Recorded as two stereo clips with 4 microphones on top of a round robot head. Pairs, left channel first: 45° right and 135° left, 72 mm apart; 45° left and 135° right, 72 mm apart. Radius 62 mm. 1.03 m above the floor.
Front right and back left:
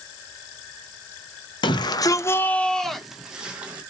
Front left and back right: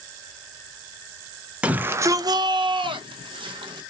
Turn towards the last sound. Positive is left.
turn(degrees=-150)